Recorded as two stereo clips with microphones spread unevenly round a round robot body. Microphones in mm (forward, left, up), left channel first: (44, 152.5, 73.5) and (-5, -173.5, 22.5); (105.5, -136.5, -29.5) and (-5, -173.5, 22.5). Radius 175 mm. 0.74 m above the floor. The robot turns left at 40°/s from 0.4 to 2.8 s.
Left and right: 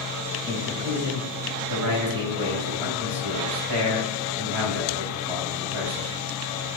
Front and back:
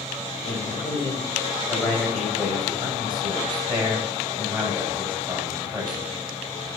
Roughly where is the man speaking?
Ahead.